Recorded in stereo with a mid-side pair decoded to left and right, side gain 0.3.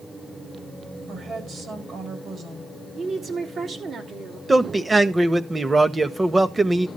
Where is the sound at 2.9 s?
65° right, 3 m.